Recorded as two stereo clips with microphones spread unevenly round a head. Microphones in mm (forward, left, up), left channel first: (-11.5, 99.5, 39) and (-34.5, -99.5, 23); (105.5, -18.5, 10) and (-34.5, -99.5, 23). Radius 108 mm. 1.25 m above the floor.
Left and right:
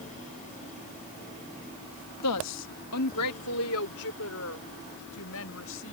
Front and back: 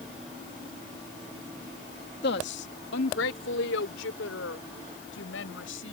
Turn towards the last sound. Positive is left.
turn(degrees=55)